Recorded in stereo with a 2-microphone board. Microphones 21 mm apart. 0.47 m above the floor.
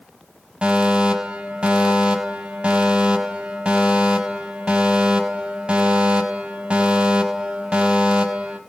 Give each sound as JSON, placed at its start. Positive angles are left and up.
{"t": 0.6, "sound": "a fire alarm", "side_deg": -55, "distance_m": 4.5}